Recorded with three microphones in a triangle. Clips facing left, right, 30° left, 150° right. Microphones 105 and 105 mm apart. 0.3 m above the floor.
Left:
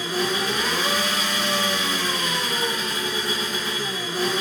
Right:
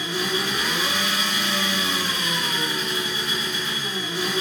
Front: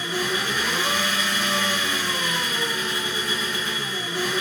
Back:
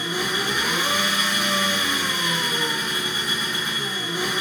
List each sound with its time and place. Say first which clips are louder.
0.0 s an engine running: left 2 dB, even; 135° left, 3.5 m